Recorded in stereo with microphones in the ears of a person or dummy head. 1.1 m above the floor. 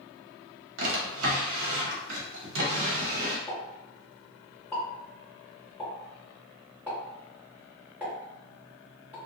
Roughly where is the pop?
Centre.